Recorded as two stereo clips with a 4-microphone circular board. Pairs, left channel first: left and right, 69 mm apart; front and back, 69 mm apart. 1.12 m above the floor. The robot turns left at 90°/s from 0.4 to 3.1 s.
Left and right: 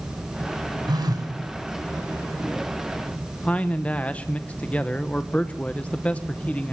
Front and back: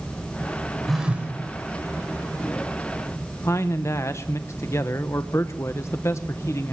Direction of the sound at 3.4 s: 25° left.